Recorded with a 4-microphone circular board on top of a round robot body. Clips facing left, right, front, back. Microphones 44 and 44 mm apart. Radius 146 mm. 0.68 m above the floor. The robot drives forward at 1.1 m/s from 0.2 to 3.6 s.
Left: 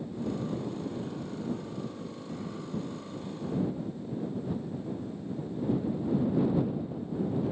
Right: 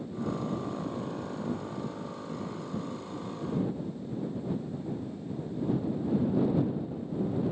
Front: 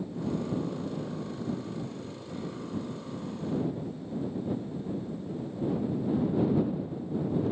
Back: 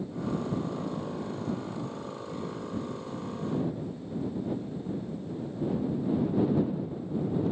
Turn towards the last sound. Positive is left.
No sound to turn to.